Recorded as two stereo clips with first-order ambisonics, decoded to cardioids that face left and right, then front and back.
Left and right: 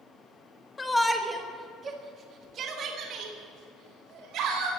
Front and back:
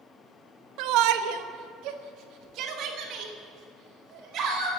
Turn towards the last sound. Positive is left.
turn(degrees=-130)